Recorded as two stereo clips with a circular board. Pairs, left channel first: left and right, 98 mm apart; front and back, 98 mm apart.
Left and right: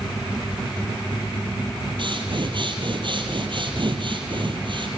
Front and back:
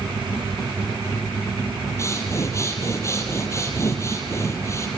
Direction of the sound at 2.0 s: 60° right.